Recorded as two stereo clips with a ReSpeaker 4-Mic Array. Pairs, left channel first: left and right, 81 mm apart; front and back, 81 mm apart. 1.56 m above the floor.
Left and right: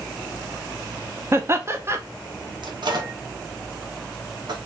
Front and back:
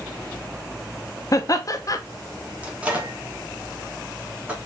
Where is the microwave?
105° right, 1.3 m.